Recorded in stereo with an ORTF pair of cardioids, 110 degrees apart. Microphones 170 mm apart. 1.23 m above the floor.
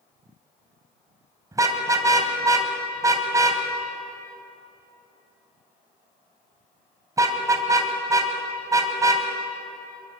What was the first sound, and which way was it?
A car horn, 20° right.